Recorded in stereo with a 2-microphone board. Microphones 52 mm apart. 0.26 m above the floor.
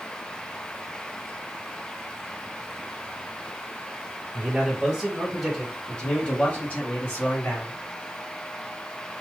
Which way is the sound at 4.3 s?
15° right (ahead or behind).